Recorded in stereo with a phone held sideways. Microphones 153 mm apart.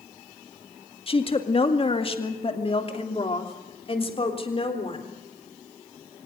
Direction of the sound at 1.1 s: 35° left (ahead or behind).